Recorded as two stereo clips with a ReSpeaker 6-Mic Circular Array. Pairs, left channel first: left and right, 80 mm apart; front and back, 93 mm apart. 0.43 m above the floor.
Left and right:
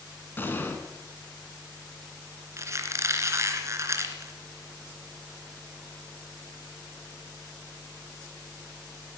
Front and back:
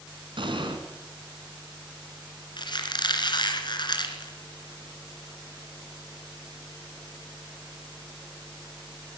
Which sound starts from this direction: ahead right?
A squeak, at 2.6 s.